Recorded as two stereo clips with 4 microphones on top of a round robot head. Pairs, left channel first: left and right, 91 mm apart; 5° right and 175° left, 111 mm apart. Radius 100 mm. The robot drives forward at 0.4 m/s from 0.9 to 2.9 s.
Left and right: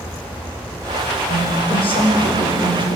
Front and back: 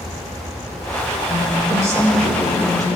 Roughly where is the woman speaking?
Left.